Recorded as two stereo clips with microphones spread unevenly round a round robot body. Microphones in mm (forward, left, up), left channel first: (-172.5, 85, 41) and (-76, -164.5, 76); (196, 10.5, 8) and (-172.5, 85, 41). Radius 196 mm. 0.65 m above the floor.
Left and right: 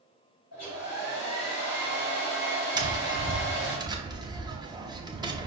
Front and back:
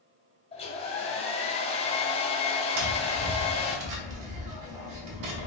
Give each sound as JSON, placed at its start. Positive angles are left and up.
{"t": 0.5, "sound": "a hair dryer", "azimuth_deg": 65, "distance_m": 1.4}
{"t": 2.8, "sound": "tapping", "azimuth_deg": -145, "distance_m": 1.0}